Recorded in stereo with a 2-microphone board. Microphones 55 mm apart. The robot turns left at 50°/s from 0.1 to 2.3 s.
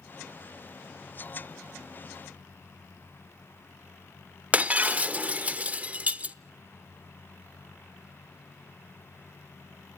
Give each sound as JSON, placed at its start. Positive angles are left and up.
{"t": 4.5, "sound": "breaking glass", "side_deg": -25, "distance_m": 0.6}